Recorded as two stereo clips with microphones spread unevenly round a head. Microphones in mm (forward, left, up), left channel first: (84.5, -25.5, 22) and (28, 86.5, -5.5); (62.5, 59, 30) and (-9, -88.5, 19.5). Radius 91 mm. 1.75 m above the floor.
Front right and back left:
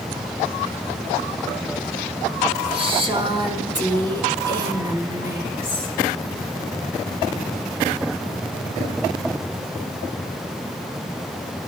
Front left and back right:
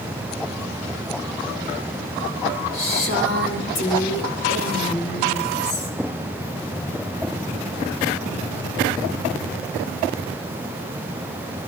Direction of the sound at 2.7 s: 75° left.